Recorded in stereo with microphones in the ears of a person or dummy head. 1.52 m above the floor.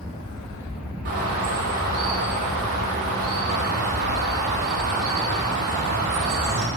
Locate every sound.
1.1 s a bird: 45° right (ahead or behind), 1.4 m